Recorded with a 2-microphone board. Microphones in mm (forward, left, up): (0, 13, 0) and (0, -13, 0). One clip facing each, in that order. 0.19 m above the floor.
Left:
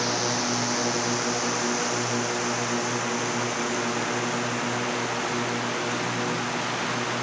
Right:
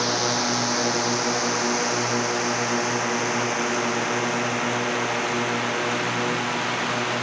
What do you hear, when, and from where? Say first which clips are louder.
0.0 s a drone: right 3 dB; 20° right (ahead or behind); by 7.2 s 35° right (ahead or behind)